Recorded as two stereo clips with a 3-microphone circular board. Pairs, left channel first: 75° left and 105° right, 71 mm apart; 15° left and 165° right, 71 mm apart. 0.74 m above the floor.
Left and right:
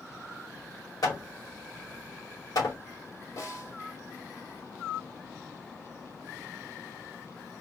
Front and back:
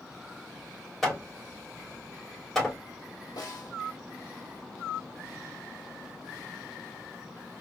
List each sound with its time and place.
1.0 s hammering: 100° left, 3 m
3.4 s a snare drum: 35° left, 1.5 m